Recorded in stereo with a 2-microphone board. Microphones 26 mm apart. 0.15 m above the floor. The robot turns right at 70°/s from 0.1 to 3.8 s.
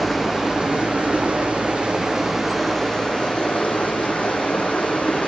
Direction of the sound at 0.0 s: 170° right.